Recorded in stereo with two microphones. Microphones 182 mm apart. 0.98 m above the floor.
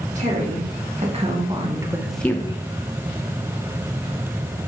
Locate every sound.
0.1 s a woman speaking: 40° right (ahead or behind), 2.5 m; by 2.6 s 35° left (ahead or behind), 0.7 m